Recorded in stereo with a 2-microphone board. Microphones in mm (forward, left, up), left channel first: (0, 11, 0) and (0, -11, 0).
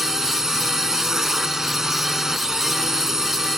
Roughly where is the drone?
Centre.